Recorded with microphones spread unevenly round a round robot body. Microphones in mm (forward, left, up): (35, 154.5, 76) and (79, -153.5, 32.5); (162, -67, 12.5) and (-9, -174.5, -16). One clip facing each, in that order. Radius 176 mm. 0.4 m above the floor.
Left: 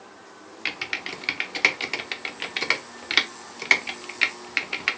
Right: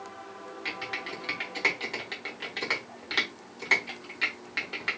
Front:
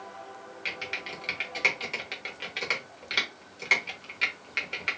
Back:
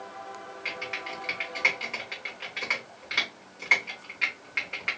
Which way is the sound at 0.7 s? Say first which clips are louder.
Left 3 dB, back 2 dB; 80° left.